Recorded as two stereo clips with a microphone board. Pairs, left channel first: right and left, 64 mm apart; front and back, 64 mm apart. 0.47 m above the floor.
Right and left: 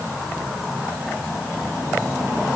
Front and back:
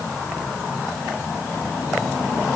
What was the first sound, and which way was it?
Only background noise.